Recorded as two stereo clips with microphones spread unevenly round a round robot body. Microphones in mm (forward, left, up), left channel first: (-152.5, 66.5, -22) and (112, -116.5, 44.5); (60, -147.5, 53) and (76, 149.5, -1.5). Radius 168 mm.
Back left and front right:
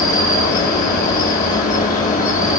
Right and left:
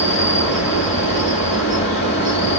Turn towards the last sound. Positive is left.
turn(degrees=-155)